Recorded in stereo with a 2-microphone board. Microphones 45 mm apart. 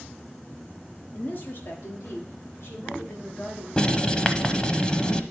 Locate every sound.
1.1 s a woman speaking: 35° left (ahead or behind), 0.9 m; by 3.7 s 65° left (ahead or behind), 3 m
3.8 s writing: 25° left (ahead or behind), 0.7 m